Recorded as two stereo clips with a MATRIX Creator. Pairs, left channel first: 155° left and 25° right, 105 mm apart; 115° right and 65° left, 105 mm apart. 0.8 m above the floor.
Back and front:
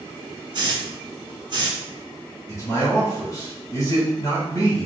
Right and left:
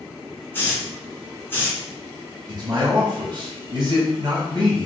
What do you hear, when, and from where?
0.5 s a hiss: 45° right, 1.2 m
2.5 s a man speaking: 105° left, 1.2 m